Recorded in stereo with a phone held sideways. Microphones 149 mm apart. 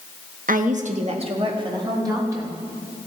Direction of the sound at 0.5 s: 70° right (ahead or behind).